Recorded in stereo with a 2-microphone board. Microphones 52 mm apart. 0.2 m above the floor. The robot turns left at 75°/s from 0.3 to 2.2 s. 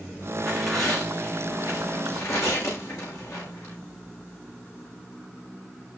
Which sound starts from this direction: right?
Tearing paper, at 0.4 s.